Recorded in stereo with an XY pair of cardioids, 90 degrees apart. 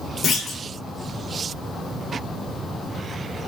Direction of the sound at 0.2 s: 60° left.